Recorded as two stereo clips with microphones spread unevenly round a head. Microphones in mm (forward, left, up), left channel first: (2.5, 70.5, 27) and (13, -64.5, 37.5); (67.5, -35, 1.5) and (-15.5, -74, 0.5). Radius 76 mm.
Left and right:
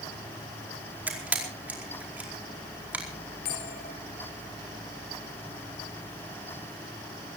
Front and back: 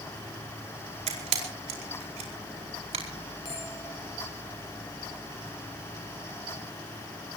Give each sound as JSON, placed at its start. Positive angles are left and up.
{"t": 1.1, "sound": "a camera shutter", "azimuth_deg": -165, "distance_m": 4.5}
{"t": 3.5, "sound": "a bell", "azimuth_deg": 90, "distance_m": 7.5}